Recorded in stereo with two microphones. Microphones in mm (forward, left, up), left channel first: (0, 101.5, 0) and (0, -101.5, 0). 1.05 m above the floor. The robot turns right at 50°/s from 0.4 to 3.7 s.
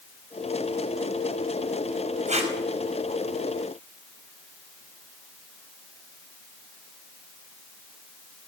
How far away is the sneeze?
I don't hear a sneeze.